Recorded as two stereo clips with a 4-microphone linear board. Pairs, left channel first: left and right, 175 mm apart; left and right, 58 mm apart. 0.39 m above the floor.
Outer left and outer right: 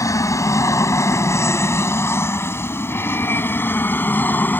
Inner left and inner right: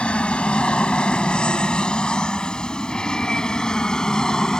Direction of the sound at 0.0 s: 15° left (ahead or behind).